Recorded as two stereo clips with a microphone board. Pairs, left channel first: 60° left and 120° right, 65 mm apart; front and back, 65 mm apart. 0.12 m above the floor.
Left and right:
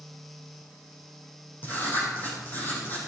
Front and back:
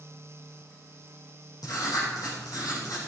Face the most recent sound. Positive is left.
turn(degrees=0)